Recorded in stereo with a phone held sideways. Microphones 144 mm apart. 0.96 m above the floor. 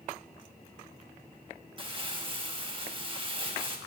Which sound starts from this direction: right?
Crumpling, at 1.8 s.